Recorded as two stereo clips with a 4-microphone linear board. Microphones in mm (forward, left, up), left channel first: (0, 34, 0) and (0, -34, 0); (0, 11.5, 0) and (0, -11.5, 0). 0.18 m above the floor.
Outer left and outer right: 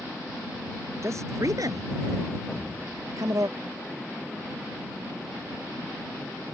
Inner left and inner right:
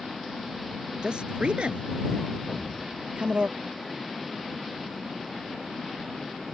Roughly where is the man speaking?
Right.